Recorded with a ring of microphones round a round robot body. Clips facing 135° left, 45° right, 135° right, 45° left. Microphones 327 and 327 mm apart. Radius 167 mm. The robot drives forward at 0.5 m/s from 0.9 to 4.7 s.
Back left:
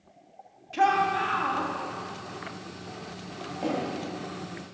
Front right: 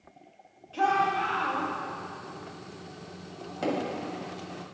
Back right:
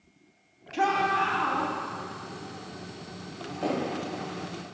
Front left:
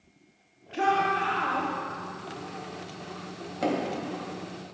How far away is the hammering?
About 1.9 m.